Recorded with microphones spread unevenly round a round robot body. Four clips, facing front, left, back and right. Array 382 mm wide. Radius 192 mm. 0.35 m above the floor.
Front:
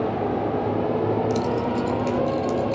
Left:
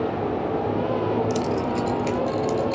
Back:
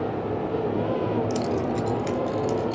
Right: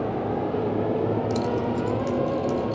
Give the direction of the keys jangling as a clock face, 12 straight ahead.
8 o'clock.